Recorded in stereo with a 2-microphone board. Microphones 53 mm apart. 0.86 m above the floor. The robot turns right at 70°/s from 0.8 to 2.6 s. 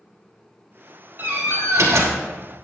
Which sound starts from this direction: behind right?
A door slam, at 1.2 s.